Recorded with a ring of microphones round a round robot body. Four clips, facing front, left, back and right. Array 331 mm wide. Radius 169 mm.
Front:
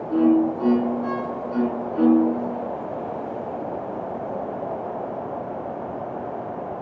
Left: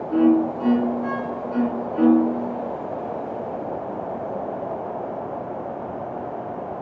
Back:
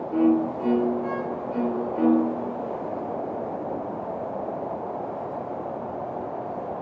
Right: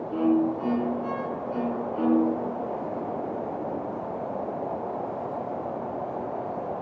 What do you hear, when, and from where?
0.1 s a violin: 20° left, 2 m